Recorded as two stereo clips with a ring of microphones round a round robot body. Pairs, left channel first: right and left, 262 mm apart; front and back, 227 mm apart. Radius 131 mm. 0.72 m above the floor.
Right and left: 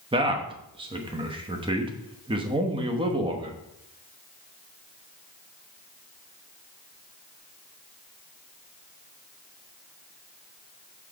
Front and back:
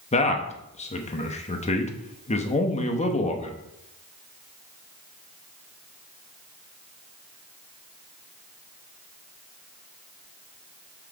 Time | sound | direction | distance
0.1 | a man speaking | 35° left | 1.0 m